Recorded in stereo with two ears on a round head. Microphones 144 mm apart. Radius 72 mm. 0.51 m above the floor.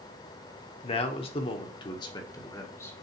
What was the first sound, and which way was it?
A man speaking, 35° left (ahead or behind).